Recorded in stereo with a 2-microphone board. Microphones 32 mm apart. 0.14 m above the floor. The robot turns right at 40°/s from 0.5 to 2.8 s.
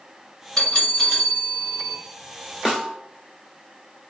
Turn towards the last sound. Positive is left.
turn(degrees=-15)  # may be behind; listen again after turning